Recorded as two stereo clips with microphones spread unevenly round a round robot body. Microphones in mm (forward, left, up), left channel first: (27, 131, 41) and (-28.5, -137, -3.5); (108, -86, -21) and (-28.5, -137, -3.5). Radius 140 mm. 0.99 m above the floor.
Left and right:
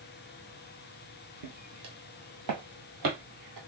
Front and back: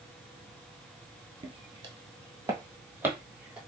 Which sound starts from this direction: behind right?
Footsteps, at 1.4 s.